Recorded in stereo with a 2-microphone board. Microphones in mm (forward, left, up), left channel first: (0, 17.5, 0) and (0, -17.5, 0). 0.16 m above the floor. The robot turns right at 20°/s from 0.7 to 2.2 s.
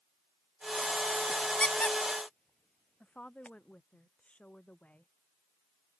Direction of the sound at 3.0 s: 35° left (ahead or behind).